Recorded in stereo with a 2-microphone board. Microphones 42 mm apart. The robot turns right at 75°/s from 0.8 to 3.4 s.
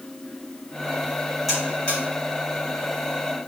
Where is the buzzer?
5° right (ahead or behind), 1.8 m; by 2.0 s 35° left (ahead or behind), 1.8 m.